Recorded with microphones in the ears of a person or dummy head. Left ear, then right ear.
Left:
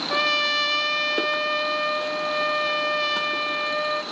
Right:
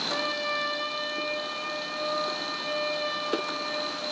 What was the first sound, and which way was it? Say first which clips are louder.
A trumpet: left 7 dB; 30° left (ahead or behind).